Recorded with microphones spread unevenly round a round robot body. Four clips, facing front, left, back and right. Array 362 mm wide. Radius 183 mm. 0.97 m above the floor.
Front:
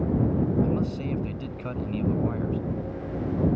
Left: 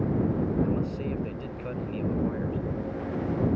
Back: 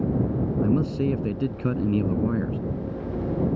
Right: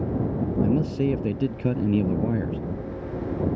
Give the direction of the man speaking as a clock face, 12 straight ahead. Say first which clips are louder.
Right 5 dB, back 4 dB; 4 o'clock.